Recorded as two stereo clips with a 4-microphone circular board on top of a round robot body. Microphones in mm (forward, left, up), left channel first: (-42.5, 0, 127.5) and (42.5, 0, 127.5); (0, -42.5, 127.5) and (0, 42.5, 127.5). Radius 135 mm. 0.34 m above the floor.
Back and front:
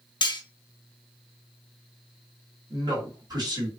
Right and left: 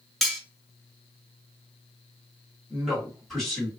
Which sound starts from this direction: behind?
Cutlery clinking, at 0.2 s.